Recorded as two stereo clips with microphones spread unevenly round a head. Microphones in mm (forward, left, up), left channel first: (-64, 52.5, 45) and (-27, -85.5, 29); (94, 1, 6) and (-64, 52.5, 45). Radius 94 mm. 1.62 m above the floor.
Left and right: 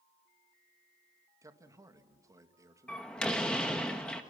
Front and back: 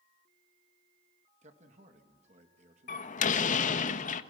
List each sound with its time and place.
1.4 s a man speaking: 145° right, 2 m
2.9 s a door slam: 25° left, 1.1 m